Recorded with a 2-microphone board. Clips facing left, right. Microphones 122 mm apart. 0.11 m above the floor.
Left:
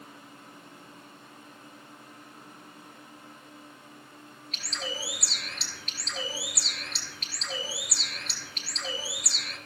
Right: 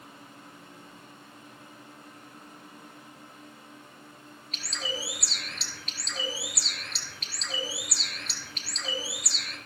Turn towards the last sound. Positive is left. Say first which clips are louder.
# right 1 dB
turn(degrees=0)  # may be behind; listen again after turning